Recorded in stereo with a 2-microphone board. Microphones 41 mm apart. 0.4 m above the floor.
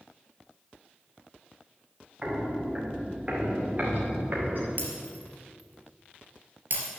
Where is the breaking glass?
50° right (ahead or behind), 2.5 m.